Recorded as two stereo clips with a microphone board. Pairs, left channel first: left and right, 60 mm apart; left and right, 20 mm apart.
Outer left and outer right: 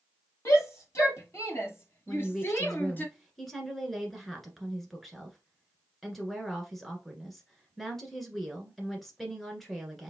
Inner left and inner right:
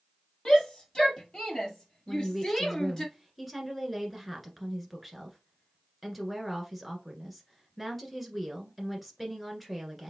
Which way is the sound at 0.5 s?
50° left (ahead or behind).